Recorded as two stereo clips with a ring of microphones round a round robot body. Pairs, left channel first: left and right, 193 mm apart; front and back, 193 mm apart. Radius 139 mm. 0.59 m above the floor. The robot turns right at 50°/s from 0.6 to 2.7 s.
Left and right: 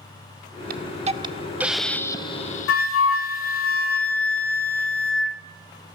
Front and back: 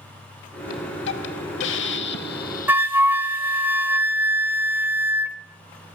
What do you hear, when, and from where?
0.7 s a hiss: 55° right, 0.6 m; by 3.7 s 45° left, 0.6 m
2.7 s a flute: 100° left, 0.5 m